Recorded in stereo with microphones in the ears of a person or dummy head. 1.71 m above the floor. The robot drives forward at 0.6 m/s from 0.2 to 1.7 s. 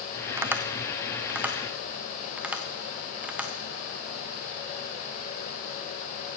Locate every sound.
0.4 s tapping: 10° right (ahead or behind), 0.6 m; by 3.5 s 5° right (ahead or behind), 1.4 m